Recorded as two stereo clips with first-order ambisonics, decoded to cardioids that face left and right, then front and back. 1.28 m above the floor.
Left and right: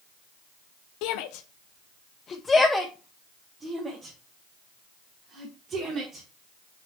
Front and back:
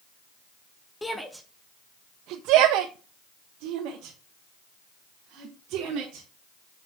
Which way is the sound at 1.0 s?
80° left.